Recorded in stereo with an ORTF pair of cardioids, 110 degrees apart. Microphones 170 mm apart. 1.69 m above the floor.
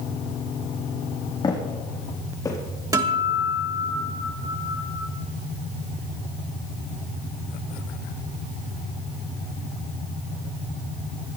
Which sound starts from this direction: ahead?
A guitar, at 2.9 s.